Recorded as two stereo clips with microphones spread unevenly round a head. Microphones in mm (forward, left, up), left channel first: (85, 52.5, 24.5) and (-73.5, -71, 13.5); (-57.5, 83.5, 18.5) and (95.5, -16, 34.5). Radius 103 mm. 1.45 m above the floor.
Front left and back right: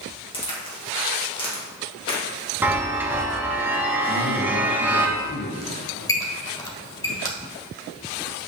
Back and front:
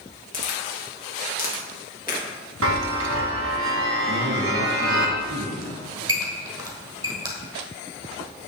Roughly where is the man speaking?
Ahead.